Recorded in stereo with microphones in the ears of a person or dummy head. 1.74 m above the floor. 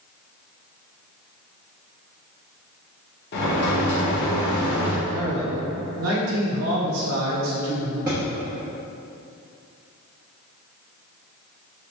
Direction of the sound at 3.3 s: 60° left (ahead or behind).